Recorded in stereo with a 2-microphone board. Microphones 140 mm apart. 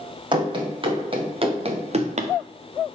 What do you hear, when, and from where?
0.3 s running footsteps: 35° right (ahead or behind), 3 m; by 2.3 s 55° right (ahead or behind), 1.4 m